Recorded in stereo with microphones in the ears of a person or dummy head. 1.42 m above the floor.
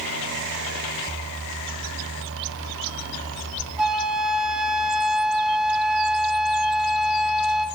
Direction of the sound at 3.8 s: 5° right (ahead or behind).